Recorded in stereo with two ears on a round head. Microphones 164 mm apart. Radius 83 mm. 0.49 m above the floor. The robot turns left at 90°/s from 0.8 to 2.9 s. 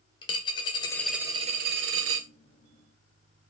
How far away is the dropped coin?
About 0.6 m.